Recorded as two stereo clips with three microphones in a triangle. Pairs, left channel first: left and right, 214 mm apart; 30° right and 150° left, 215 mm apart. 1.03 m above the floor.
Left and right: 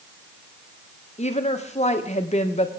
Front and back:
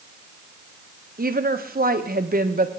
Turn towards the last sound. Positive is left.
turn(degrees=130)